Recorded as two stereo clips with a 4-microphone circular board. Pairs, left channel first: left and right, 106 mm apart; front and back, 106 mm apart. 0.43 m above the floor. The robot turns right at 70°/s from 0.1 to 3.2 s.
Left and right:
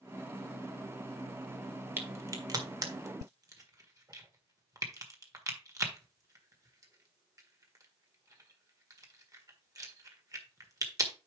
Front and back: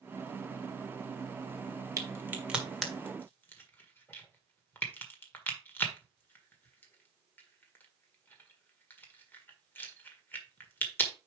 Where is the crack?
145° right, 1.6 m; by 11.1 s 60° right, 1.6 m.